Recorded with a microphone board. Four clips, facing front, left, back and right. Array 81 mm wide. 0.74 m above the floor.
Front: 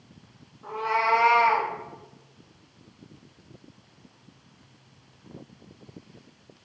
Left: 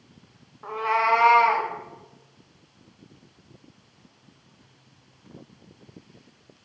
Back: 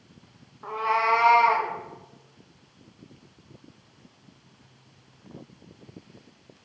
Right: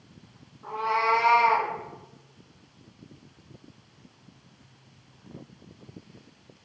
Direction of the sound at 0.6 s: 130° left.